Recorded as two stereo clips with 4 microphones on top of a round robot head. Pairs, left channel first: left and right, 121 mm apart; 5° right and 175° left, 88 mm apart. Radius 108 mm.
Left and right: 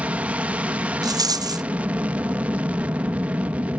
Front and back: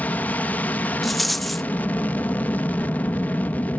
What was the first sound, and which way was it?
An aircraft, 35° right.